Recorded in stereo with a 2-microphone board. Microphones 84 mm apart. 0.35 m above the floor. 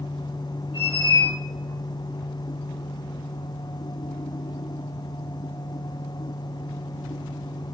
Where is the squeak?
80° left, 2 m.